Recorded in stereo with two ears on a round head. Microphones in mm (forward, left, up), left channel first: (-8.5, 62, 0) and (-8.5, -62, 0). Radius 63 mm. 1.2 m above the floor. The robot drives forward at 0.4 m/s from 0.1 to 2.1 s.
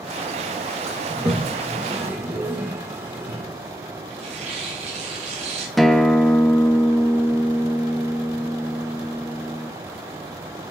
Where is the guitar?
Centre (ahead or behind), 0.9 m.